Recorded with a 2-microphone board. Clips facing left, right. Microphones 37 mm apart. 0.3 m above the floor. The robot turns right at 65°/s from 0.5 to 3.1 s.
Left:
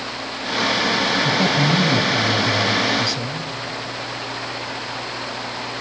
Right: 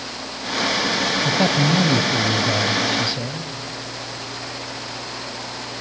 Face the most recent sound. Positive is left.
turn(degrees=-30)